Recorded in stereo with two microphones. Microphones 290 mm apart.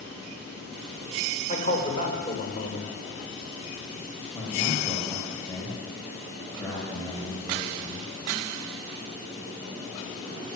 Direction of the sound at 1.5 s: 30° left (ahead or behind).